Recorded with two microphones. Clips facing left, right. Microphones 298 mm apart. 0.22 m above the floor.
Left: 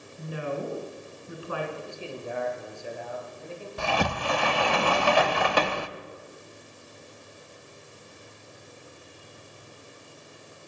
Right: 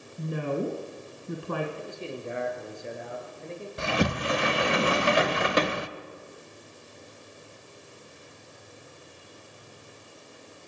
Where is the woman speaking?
55° right (ahead or behind), 2.5 m.